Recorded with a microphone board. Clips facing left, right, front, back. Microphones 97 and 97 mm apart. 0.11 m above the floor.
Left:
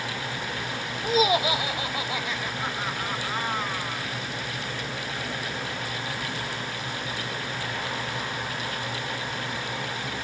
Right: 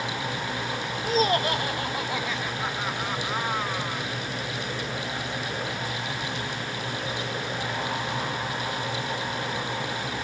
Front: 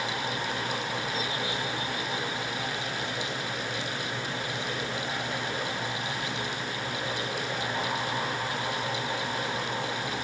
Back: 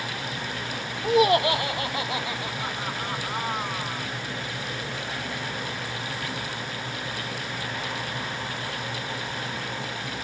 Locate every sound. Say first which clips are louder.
1.0 s laughter: left 1 dB, back 12 dB; 170° left; by 4.1 s 170° right